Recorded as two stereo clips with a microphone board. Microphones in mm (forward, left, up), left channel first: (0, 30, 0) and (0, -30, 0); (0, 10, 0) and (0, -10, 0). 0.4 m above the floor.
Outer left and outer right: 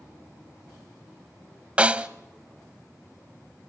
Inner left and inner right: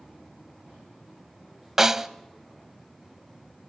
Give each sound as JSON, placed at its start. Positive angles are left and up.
{"t": 1.8, "sound": "a snare drum", "side_deg": -20, "distance_m": 0.8}